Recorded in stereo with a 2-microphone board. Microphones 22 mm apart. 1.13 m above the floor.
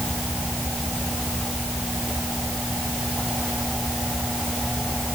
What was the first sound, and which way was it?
Only background noise.